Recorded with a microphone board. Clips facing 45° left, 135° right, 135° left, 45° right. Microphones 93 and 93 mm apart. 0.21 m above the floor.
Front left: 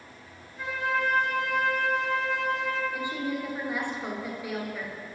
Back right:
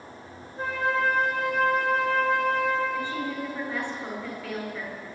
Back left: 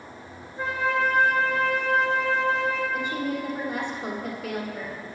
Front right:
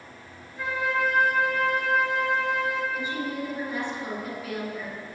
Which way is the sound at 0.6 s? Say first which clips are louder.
Back right 3 dB, back left 2 dB; 175° right.